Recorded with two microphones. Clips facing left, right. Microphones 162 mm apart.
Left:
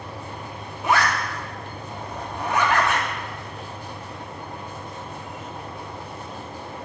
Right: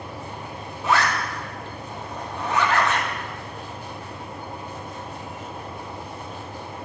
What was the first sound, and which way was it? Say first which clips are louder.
A zipper: even; 15° left (ahead or behind).